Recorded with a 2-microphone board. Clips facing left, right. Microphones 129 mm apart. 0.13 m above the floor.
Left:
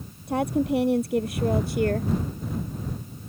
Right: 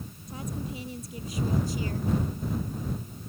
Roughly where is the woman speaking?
Left.